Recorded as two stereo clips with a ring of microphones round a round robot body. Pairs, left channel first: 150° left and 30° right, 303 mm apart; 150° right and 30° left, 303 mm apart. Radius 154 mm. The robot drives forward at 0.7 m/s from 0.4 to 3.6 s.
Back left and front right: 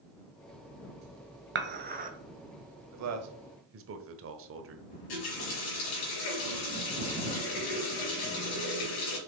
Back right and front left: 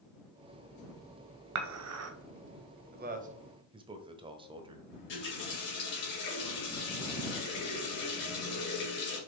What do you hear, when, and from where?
1.6 s dishes clattering: 20° left, 1.4 m; by 2.1 s 25° left, 1.1 m
2.9 s a man speaking: 20° right, 1.4 m; by 4.9 s 35° right, 1.1 m
4.9 s a running tap: 155° left, 4 m